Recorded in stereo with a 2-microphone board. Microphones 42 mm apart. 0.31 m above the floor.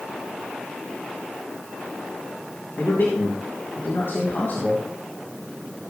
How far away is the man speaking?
About 3.5 m.